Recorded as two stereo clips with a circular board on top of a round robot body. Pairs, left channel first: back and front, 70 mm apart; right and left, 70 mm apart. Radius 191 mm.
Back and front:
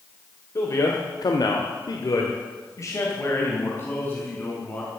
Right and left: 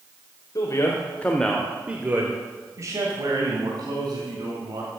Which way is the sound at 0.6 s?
130° right.